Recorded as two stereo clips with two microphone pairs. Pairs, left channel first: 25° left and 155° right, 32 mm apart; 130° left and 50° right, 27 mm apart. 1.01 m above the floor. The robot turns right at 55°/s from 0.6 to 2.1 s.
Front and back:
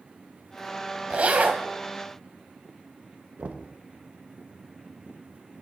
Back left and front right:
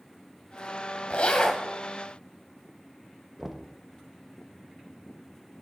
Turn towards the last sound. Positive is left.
turn(degrees=-130)